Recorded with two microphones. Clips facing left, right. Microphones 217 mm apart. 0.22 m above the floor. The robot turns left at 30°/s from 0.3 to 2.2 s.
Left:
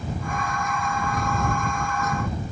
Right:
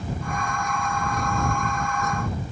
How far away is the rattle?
I don't hear a rattle.